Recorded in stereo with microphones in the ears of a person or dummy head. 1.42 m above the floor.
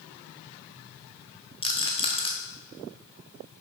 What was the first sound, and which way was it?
A rattle, 25° left (ahead or behind).